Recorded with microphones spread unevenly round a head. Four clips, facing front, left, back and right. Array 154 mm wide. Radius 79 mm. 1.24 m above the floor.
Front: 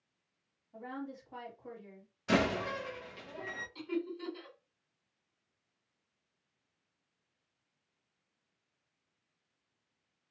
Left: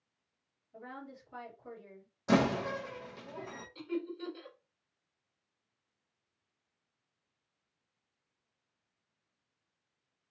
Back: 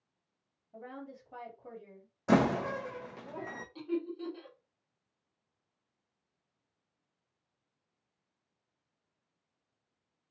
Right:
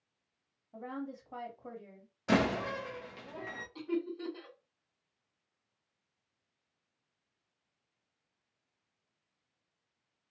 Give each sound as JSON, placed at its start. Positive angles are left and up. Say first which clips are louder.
{"t": 0.7, "sound": "a woman speaking", "louder": "right 6 dB, front 3 dB", "azimuth_deg": -115, "distance_m": 1.6}
{"t": 2.3, "sound": "a door slam", "louder": "left 1 dB, back 4 dB", "azimuth_deg": -165, "distance_m": 0.5}
{"t": 3.8, "sound": "laughter", "louder": "right 2 dB, back 2 dB", "azimuth_deg": -130, "distance_m": 1.8}